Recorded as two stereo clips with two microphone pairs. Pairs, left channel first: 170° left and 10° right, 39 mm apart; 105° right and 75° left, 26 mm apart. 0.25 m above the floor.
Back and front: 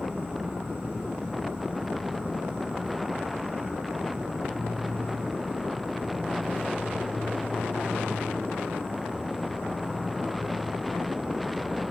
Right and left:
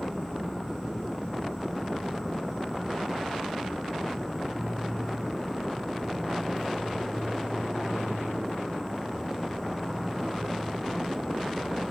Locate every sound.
0.0 s an insect: 60° right, 1.3 m